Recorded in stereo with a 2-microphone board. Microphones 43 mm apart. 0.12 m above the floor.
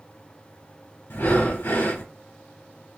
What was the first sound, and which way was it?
Breathing, 60° left (ahead or behind).